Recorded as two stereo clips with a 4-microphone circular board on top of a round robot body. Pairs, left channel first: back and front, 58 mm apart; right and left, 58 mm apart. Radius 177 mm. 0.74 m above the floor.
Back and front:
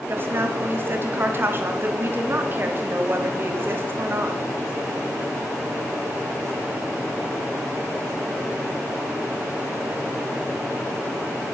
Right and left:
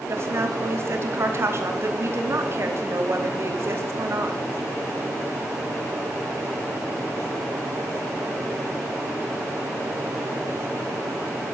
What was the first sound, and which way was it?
A woman speaking, 50° left.